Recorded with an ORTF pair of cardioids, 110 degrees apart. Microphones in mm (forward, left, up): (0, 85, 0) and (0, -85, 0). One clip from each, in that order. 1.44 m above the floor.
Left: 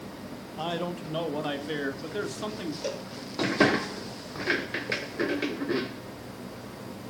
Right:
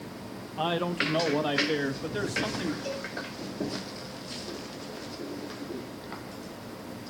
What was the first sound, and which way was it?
A man speaking, 25° right.